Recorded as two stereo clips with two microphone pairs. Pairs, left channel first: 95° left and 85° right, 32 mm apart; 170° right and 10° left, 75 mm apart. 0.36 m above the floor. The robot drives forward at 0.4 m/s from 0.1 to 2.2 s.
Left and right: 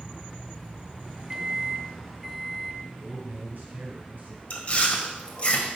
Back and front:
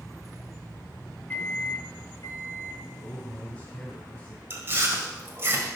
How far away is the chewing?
About 1.4 m.